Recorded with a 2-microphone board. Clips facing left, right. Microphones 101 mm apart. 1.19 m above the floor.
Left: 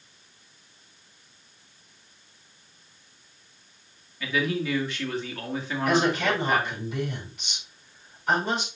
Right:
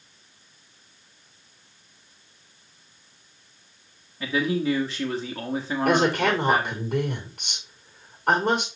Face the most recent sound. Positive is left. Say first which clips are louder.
# right 2 dB
turn(degrees=-60)  # may be behind; listen again after turning